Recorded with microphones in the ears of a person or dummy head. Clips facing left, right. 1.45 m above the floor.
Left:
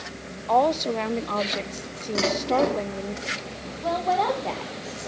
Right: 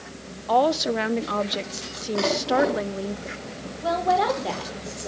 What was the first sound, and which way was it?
A woman speaking, 10° right (ahead or behind).